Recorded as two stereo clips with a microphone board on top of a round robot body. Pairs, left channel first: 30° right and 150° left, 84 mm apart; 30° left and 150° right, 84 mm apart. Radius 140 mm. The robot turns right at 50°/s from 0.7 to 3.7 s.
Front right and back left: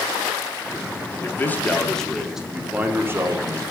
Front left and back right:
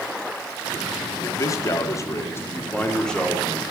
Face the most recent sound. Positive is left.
turn(degrees=135)